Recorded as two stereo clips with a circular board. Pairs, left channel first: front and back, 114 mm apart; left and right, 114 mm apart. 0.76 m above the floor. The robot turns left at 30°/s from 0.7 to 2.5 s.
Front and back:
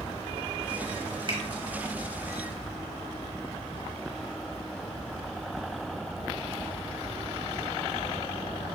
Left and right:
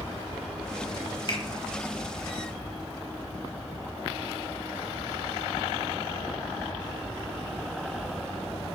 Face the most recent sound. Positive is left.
turn(degrees=100)